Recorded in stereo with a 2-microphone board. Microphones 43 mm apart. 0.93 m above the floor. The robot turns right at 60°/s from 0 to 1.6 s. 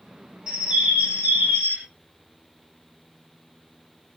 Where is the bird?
155° right, 1.0 m; by 1.8 s 85° right, 1.0 m.